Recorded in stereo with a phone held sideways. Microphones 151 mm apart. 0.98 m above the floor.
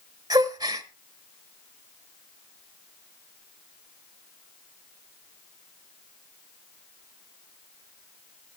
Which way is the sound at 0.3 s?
25° right (ahead or behind).